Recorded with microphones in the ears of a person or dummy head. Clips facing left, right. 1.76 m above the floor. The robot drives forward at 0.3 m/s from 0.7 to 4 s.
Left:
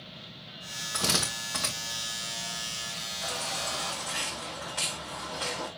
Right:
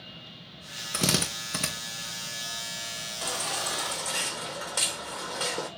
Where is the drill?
30° right (ahead or behind), 1.7 m.